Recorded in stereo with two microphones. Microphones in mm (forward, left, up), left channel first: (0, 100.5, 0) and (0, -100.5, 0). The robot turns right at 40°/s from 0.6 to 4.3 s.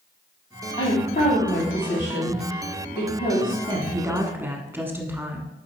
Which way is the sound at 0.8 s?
25° left (ahead or behind).